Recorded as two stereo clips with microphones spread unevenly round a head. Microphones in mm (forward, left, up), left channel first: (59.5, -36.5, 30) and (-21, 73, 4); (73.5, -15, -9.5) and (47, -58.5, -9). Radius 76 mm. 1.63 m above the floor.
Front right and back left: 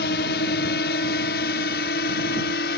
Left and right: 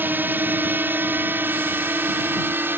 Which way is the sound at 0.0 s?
75° right.